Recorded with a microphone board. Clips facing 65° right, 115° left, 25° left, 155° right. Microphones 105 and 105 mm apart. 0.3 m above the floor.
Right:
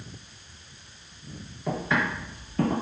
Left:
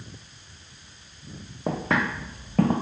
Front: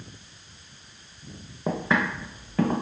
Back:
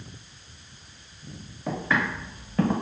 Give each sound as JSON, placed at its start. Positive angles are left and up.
{"t": 1.7, "sound": "footsteps", "azimuth_deg": 70, "distance_m": 0.8}